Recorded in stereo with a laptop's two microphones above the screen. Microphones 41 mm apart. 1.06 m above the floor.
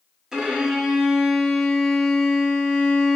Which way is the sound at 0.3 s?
10° right (ahead or behind).